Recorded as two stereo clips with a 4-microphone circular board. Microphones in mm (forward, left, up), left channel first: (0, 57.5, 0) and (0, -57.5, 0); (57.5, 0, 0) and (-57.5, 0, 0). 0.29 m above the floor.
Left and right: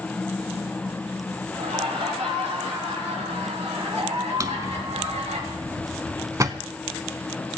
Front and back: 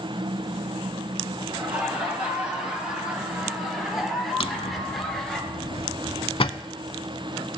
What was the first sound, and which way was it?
Laughter, 100° right.